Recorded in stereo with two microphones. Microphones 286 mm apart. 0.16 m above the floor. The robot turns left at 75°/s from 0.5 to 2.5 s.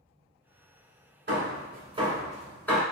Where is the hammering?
40° right (ahead or behind), 1.3 m; by 2.8 s 5° left (ahead or behind), 1.3 m.